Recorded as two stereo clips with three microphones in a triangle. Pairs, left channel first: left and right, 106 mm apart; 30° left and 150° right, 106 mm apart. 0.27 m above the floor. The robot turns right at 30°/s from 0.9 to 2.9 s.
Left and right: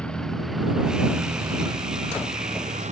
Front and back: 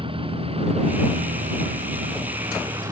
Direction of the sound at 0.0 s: 170° left.